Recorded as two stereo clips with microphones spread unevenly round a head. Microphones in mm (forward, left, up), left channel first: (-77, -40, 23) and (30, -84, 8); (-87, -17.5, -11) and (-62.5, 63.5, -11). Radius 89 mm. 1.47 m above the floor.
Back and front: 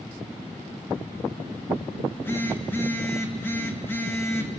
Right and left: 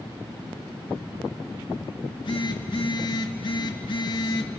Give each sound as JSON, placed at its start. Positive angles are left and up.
{"t": 2.0, "sound": "a phone buzzing", "azimuth_deg": -130, "distance_m": 2.0}